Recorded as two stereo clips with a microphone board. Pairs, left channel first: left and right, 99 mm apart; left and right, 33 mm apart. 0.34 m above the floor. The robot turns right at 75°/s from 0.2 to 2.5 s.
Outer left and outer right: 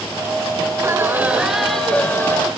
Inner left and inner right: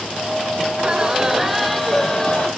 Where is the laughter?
70° right, 1.4 m; by 2.5 s 60° left, 1.4 m.